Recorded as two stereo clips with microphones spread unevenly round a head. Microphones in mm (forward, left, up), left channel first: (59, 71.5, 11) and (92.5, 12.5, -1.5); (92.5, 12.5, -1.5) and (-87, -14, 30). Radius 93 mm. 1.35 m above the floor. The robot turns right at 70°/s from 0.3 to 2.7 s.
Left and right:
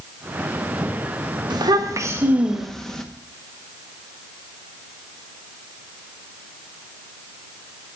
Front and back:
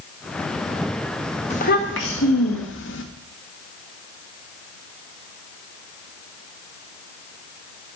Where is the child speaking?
50° right, 1.2 m; by 3.0 s 35° left, 1.2 m.